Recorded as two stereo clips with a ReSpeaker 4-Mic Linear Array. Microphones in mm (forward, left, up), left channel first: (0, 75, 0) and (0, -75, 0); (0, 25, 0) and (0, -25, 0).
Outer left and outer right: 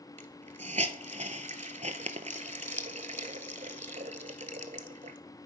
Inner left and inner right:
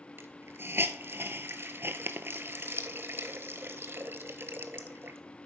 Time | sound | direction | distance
0.2 | a hiss | 55° right (ahead or behind) | 0.6 m